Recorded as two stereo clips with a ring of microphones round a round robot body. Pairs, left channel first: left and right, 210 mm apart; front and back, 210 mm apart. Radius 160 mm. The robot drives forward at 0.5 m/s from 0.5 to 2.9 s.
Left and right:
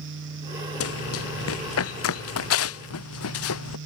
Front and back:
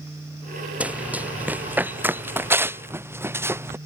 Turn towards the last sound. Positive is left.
turn(degrees=100)